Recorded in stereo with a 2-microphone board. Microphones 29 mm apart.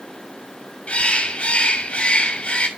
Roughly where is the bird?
Left.